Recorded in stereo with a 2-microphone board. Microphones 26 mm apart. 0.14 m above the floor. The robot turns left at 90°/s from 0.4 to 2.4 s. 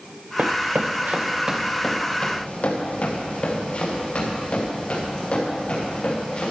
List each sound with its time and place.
0.4 s running footsteps: 85° right, 0.8 m; by 6.5 s 40° left (ahead or behind), 6 m